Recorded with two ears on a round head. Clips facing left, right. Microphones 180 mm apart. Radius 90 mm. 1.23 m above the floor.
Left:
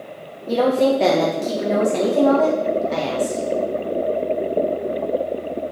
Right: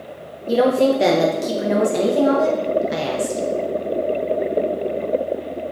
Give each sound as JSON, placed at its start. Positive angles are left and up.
{"t": 0.5, "sound": "a woman speaking", "side_deg": -10, "distance_m": 0.6}